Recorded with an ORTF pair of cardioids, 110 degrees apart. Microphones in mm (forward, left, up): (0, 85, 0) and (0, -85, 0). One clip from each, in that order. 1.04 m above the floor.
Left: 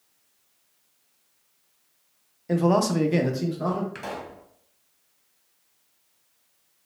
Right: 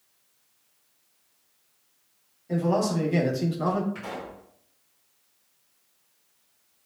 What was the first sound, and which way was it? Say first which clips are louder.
A man speaking: left 3 dB; 60° left.